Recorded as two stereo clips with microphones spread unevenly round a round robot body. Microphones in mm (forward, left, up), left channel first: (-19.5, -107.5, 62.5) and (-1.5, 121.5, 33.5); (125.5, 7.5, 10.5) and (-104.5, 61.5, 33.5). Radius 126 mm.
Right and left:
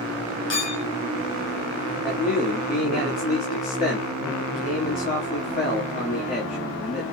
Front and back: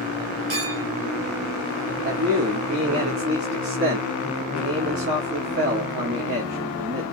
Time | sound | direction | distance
0.5 | a clink | 135° right | 2.5 m
2.0 | a man speaking | 150° right | 2 m